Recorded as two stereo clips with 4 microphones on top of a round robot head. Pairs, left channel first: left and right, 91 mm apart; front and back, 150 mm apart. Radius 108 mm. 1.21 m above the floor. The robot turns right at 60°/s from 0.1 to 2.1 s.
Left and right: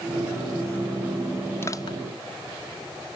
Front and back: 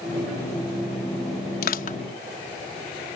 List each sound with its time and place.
1.6 s crushing: 15° left; by 2.0 s 40° left